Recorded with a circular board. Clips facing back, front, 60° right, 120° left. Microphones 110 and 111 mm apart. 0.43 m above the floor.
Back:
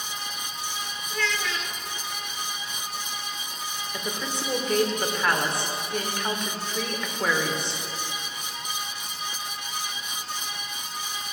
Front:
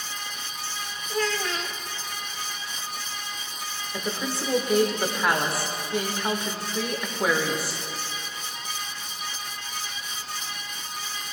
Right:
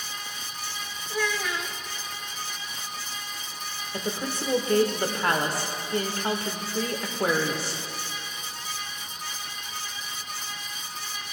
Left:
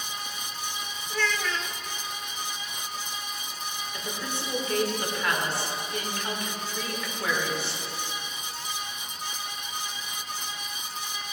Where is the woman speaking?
80° right, 1.0 m.